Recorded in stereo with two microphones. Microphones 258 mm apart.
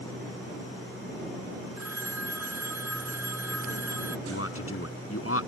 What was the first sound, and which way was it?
A phone ringing, 75° right (ahead or behind).